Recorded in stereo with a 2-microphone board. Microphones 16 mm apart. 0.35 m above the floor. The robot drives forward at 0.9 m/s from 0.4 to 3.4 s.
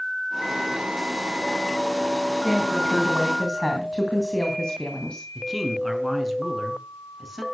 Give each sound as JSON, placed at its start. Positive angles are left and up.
{"t": 2.4, "sound": "a woman speaking", "side_deg": 40, "distance_m": 3.0}
{"t": 5.3, "sound": "a man speaking", "side_deg": 0, "distance_m": 4.5}